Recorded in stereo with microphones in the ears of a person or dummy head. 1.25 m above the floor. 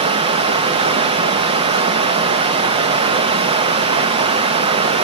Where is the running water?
30° right (ahead or behind), 0.7 m.